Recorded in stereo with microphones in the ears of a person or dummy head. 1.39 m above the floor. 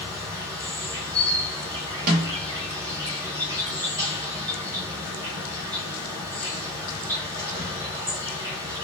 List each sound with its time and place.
0.0 s an insect: 20° right (ahead or behind), 0.9 m
2.1 s a snare drum: 45° right (ahead or behind), 1.0 m